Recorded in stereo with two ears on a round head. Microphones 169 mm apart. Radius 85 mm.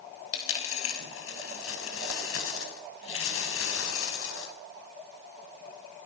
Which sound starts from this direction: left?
A dropped coin, at 0.3 s.